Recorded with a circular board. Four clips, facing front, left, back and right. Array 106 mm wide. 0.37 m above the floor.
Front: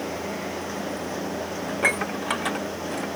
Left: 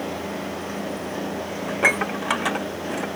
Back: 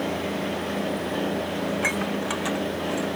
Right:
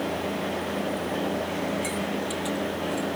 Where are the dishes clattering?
75° left.